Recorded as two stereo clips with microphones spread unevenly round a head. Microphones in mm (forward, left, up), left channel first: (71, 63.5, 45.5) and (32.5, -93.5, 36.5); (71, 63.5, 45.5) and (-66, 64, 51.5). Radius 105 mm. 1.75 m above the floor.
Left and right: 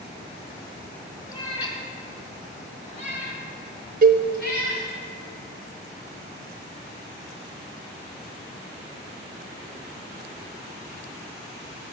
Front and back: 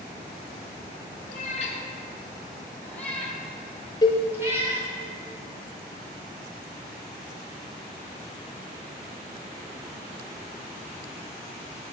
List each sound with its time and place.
1.3 s a cat meowing: 15° left, 2.5 m; by 4.9 s 115° left, 3.5 m
4.0 s a cowbell: 70° right, 0.7 m